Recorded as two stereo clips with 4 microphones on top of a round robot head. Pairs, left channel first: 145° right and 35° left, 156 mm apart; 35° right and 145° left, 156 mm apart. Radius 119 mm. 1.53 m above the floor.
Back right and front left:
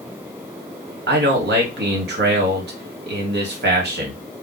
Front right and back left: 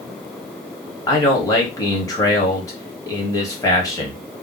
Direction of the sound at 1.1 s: 35° left.